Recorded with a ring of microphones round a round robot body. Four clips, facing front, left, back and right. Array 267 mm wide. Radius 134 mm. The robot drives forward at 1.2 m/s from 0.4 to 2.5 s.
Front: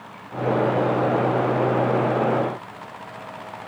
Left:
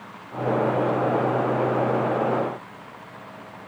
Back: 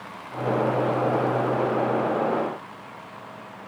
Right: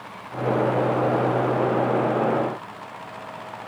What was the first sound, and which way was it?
Only background noise.